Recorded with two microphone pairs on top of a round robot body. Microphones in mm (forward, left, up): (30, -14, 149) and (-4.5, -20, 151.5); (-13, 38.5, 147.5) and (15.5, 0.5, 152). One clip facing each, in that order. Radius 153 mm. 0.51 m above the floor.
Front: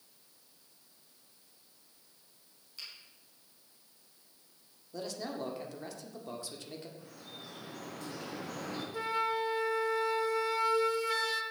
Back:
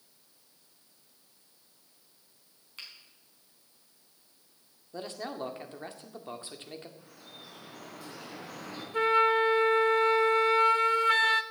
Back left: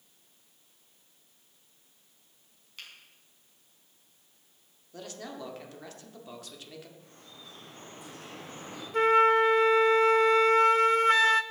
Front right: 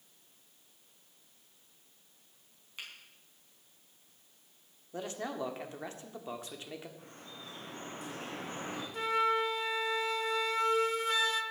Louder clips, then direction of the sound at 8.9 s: Back 9 dB, back left 9 dB; 150° left.